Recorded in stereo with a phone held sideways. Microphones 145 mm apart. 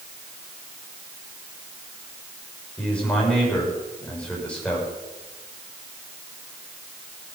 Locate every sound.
2.8 s a man speaking: 5° left (ahead or behind), 6 m